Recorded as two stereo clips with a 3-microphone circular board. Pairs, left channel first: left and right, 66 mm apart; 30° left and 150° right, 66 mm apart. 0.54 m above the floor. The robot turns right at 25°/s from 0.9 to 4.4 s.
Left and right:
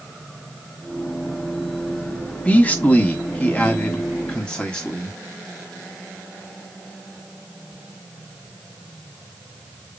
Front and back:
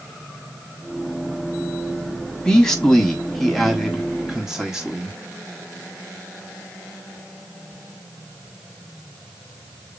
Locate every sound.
2.5 s a man speaking: 85° left, 1.1 m; by 5.2 s 135° left, 1.1 m